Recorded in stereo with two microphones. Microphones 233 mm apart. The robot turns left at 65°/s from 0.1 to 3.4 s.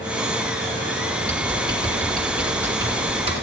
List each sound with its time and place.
1.2 s typing on a keyboard: 25° left (ahead or behind), 1.8 m; by 3.3 s 25° right (ahead or behind), 1.8 m